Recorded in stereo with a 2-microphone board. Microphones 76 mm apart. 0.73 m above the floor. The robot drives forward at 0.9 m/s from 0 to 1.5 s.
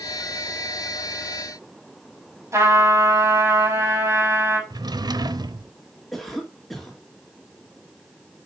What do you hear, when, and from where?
2.5 s a trumpet: 40° right (ahead or behind), 5 m
4.7 s a drawer: 70° right (ahead or behind), 0.9 m
6.1 s a cough: 5° left (ahead or behind), 2 m